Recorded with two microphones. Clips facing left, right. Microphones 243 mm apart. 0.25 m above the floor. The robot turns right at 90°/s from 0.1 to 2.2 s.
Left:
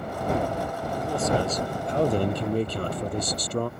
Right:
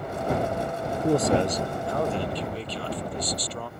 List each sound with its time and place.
1.0 s a man speaking: 55° right; by 3.7 s 50° left